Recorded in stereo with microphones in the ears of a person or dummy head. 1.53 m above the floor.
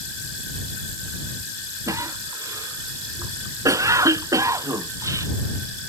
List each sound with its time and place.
1.9 s a cough: 15° right (ahead or behind)